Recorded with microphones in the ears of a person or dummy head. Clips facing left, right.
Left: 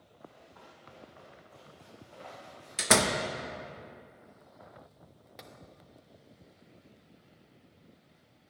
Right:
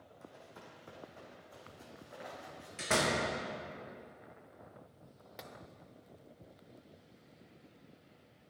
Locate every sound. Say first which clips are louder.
0.2 s running footsteps: left 1 dB; 35° right (ahead or behind), 2.5 m; by 2.7 s 10° right (ahead or behind), 4 m
2.8 s a door slam: left 5 dB; 65° left (ahead or behind), 0.9 m
5.4 s tapping: right 1 dB; 5° right (ahead or behind), 0.6 m